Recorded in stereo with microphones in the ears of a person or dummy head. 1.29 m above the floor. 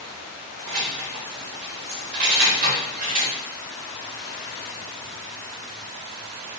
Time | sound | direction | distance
0.7 | keys jangling | 65° right (ahead or behind) | 1.1 m